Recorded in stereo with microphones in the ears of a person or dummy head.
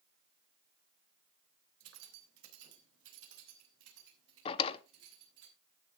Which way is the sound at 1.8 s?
80° right.